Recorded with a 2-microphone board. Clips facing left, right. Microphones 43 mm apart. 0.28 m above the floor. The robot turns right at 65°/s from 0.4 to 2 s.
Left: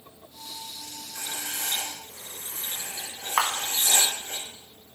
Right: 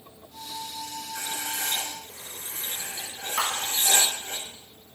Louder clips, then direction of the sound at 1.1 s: Right 1 dB; 120° right.